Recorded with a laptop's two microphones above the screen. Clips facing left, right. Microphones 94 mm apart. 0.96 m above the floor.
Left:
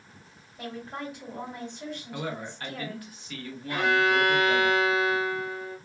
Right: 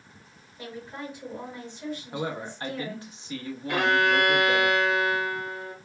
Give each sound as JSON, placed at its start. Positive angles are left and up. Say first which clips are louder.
{"t": 0.6, "sound": "a woman speaking", "louder": "left 1 dB", "side_deg": 60, "distance_m": 2.0}
{"t": 2.1, "sound": "a man speaking", "louder": "right 2 dB", "side_deg": -20, "distance_m": 0.7}
{"t": 3.7, "sound": "a violin", "louder": "right 1 dB", "side_deg": -75, "distance_m": 0.6}